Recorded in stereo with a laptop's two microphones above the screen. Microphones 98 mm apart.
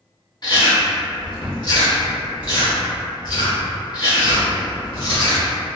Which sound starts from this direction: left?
Chewing, at 0.4 s.